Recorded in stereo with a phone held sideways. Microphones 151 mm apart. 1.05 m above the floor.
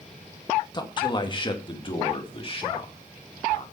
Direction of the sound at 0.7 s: 30° left (ahead or behind).